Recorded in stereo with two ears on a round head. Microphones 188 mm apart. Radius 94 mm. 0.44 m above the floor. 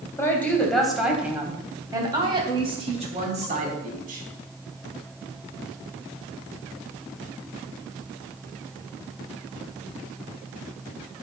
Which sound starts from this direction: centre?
A woman speaking, at 0.2 s.